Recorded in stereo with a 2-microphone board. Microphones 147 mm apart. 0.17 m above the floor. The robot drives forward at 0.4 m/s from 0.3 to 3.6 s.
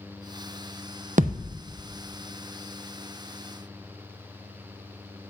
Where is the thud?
60° right (ahead or behind), 0.5 m; by 1.6 s 75° right (ahead or behind), 0.5 m.